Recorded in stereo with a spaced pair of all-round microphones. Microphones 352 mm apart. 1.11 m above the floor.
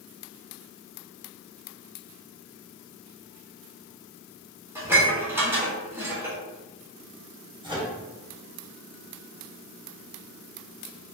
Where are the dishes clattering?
5° right (ahead or behind), 1.5 m.